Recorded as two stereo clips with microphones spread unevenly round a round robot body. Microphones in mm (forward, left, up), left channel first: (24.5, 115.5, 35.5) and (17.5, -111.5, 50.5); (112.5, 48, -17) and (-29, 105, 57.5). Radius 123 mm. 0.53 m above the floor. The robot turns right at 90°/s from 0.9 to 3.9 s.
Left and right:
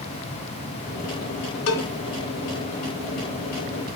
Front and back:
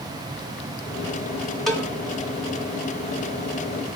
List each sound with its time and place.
1.7 s a cowbell: 65° left, 1.5 m; by 1.9 s 85° left, 1.5 m